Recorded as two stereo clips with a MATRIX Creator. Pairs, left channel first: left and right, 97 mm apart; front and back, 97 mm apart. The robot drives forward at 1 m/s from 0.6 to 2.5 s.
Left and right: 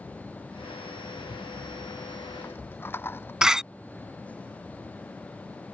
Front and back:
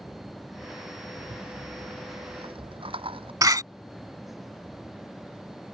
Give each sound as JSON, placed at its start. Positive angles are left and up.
{"t": 1.2, "sound": "a rattle", "azimuth_deg": 135}
{"t": 3.4, "sound": "a door slam", "azimuth_deg": -170}